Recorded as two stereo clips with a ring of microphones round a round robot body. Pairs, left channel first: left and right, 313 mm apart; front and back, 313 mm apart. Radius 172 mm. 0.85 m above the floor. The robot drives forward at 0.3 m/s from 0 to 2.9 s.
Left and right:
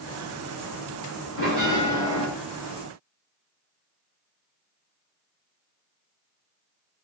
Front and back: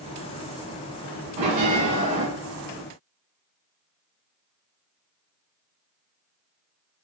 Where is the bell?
165° right, 1.3 m; by 2.3 s 170° right, 1.5 m.